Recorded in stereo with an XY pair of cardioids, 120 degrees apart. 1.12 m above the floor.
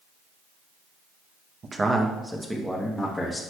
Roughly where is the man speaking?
Ahead right.